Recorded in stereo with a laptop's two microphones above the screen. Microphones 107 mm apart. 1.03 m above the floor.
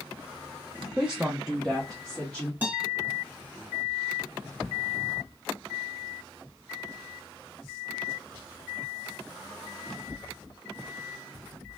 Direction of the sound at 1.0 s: 15° right (ahead or behind).